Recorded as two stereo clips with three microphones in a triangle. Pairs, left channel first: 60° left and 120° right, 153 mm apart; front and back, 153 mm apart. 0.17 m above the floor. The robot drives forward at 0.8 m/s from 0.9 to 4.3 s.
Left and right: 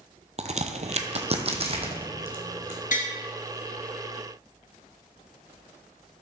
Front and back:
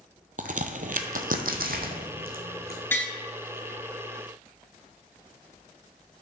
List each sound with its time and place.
0.4 s a crack: 155° right, 0.7 m; by 2.8 s 175° right, 2 m
2.9 s tapping: 75° left, 2.5 m; by 3.1 s 80° left, 2.5 m